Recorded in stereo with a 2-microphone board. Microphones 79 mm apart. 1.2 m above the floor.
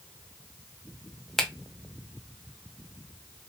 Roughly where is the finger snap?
Centre.